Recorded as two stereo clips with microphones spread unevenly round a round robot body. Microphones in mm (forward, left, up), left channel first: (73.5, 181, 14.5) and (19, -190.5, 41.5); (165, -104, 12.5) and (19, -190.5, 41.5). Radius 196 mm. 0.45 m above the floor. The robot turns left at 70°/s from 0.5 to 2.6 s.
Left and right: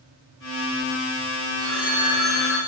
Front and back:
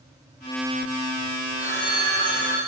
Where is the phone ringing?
145° right, 5 m; by 2.6 s 145° left, 5 m.